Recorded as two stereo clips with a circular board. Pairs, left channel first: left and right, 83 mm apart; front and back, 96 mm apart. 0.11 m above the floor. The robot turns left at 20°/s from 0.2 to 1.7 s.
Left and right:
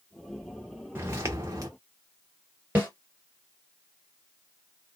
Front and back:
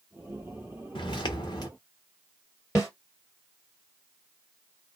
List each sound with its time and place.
0.9 s footsteps: 30° right, 0.9 m; by 1.7 s 45° right, 0.9 m
2.8 s a snare drum: 35° right, 2 m